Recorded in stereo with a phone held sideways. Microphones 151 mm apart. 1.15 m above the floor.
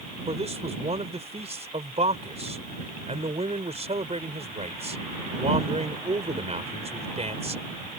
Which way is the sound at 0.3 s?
45° right (ahead or behind).